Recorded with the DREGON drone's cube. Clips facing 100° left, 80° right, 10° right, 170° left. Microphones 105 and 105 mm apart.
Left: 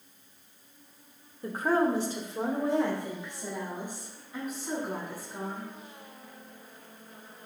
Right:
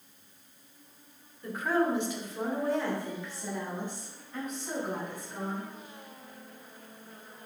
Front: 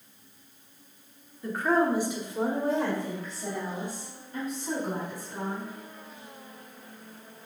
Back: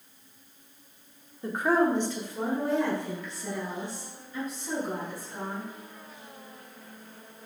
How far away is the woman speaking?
About 1.1 m.